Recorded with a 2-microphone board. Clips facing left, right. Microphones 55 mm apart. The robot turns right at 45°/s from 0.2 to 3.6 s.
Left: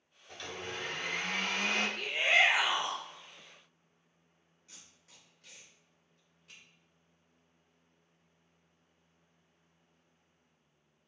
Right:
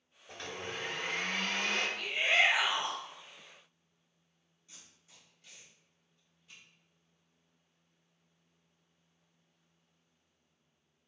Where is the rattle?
No rattle in this recording.